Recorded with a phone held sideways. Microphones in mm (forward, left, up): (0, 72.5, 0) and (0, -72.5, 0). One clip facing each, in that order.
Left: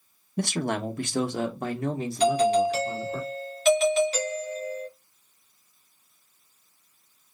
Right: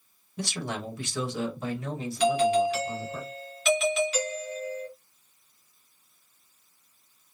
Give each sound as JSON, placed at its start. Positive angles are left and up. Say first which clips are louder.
{"t": 0.4, "sound": "a man speaking", "louder": "left 6 dB", "side_deg": 55, "distance_m": 0.7}
{"t": 2.2, "sound": "a doorbell", "louder": "left 1 dB", "side_deg": 40, "distance_m": 1.4}